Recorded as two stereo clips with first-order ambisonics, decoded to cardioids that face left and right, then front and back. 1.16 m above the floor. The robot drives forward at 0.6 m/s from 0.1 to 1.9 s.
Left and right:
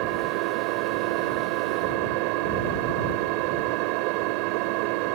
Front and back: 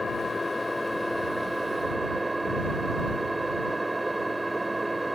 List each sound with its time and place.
0.0 s an engine running: 75° right; by 5.2 s 95° right